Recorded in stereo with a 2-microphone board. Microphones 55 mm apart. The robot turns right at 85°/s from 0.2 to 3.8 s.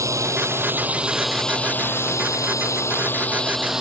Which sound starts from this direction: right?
A drone, at 0.0 s.